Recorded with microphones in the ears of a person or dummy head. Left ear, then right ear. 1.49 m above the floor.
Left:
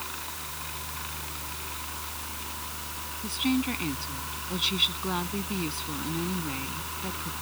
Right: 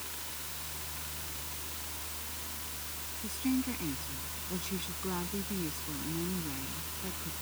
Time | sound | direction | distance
0.0 | a fan | 20° left (ahead or behind) | ?
3.2 | a woman speaking | 25° left (ahead or behind) | ?